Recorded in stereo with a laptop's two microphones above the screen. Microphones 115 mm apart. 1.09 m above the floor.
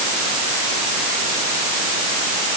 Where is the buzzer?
I don't hear a buzzer.